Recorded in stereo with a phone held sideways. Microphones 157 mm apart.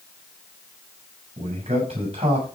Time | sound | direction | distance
1.4 | a man speaking | 40° right (ahead or behind) | 8 m